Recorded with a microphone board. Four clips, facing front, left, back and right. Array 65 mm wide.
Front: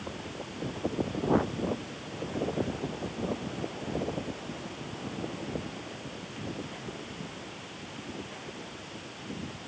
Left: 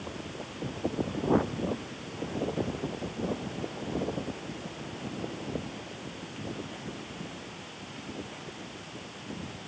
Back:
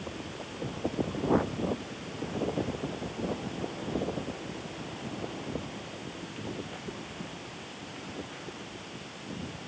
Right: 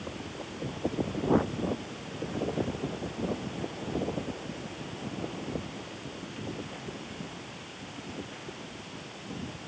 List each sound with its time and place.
Only background noise.